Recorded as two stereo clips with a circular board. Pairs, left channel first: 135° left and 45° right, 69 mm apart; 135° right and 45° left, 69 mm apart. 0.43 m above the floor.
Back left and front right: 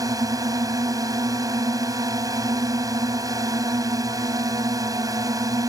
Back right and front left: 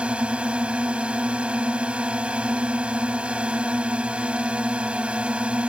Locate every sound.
0.0 s a drone: 25° right